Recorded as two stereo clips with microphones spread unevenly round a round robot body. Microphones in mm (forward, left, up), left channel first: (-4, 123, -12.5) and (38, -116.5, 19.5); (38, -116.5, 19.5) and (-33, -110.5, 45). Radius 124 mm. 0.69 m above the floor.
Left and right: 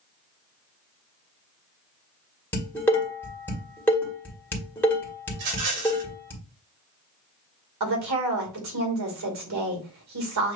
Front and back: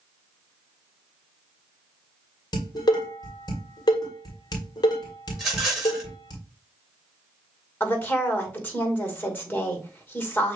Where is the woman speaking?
60° right, 2.5 m.